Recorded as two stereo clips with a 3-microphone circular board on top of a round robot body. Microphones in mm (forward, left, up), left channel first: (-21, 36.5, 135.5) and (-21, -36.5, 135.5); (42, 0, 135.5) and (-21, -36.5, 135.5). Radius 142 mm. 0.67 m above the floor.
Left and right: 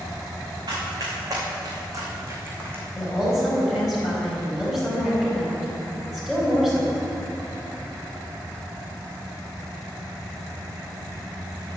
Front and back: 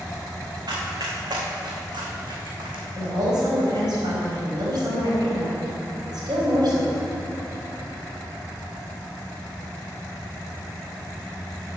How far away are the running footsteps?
About 3.5 m.